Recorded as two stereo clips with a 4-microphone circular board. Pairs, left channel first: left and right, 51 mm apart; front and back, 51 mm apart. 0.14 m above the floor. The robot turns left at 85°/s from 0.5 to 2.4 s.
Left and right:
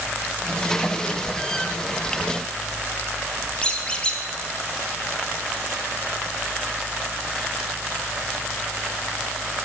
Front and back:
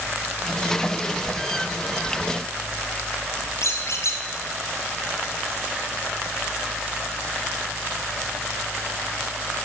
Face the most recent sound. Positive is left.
turn(degrees=20)